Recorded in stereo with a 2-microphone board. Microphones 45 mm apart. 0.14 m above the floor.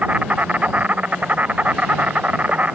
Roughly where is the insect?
Right.